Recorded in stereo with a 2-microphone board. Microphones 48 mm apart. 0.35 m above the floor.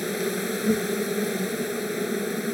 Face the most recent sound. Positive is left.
turn(degrees=0)  # may be behind; listen again after turning